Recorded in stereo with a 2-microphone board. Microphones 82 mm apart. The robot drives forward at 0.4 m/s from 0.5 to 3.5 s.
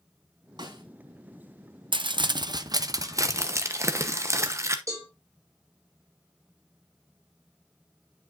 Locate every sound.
0.6 s a snare drum: 60° right (ahead or behind), 3 m; by 0.8 s 55° right (ahead or behind), 3 m
1.9 s crumpling: 70° right (ahead or behind), 0.5 m; by 4.8 s 35° right (ahead or behind), 0.9 m
4.9 s a cowbell: 40° right (ahead or behind), 3.5 m